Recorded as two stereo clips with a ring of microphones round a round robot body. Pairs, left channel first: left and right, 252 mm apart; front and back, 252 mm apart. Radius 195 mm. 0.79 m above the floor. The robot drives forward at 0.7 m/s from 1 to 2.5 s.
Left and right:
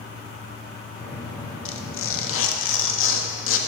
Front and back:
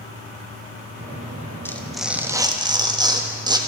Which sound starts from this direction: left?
Tearing paper, at 1.6 s.